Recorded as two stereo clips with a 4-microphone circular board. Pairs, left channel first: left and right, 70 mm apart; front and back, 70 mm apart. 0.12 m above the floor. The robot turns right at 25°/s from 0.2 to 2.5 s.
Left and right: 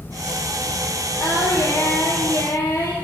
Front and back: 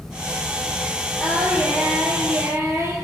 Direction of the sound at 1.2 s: 95° left.